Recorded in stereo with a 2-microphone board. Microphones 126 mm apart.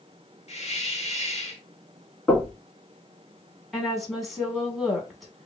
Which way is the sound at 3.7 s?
Centre (ahead or behind).